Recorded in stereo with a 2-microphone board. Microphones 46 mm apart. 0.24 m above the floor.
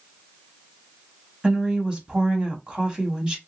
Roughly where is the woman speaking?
Right.